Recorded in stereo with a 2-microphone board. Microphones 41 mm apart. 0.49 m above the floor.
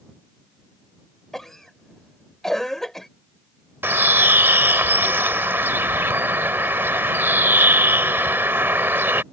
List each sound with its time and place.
1.3 s a cough: 5° left (ahead or behind)
3.8 s a bird: 70° right (ahead or behind)